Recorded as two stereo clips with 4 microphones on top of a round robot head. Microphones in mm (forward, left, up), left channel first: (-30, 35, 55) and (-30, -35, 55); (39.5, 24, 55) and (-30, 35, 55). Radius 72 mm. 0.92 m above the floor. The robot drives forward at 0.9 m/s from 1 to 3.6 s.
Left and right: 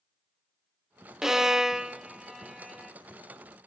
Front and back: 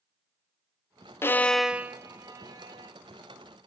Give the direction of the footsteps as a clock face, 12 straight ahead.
I don't hear footsteps.